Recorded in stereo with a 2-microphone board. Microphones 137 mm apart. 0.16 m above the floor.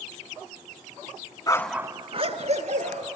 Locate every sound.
1.5 s a dog barking: 30° left (ahead or behind), 0.5 m; by 3.1 s 60° right (ahead or behind), 1.8 m